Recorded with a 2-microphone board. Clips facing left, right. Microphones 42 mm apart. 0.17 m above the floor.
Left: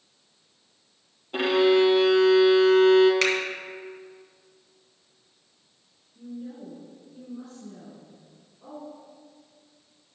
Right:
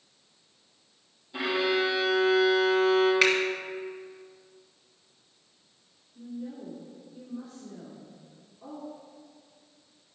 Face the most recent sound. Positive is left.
turn(degrees=-5)  # may be behind; listen again after turning